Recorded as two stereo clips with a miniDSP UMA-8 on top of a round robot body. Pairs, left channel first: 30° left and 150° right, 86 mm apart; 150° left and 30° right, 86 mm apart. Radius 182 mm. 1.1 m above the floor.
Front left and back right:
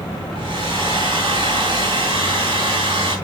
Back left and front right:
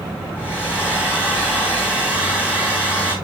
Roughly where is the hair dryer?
Behind right.